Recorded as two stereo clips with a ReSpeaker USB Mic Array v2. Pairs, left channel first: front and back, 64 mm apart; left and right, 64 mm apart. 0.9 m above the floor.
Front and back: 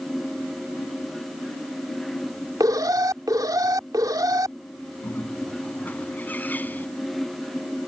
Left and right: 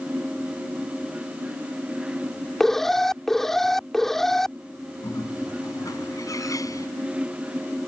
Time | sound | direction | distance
2.6 | an alarm | 175° left | ?
5.0 | a bird | 60° left | ?